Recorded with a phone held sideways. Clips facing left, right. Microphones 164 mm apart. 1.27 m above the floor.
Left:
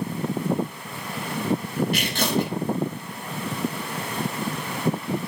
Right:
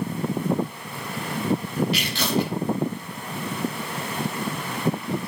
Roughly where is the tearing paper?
Left.